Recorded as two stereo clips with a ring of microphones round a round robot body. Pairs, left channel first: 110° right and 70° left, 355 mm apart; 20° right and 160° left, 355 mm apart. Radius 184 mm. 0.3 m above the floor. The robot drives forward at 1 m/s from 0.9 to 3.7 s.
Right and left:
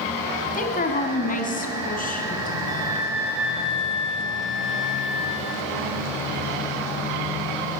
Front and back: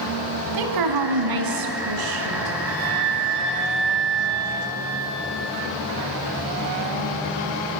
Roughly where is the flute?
Behind left.